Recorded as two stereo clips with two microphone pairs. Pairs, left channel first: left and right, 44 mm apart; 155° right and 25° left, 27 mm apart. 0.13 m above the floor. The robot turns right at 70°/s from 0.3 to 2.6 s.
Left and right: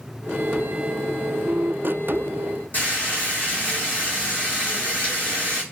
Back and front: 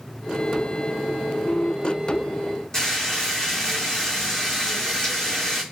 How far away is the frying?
About 1.8 m.